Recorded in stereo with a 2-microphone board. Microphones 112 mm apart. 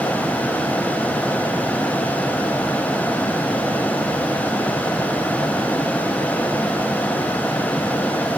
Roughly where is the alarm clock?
No alarm clock in this recording.